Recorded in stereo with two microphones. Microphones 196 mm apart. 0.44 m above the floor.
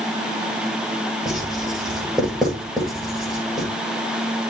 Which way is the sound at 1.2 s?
Centre (ahead or behind).